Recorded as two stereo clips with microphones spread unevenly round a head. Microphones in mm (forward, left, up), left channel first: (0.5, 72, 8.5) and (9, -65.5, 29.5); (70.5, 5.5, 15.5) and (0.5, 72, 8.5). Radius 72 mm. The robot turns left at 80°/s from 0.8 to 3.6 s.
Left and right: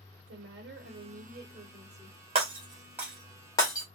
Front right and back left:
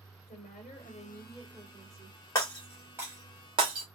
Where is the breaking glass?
100° right, 1.3 m; by 3.9 s 160° left, 1.3 m.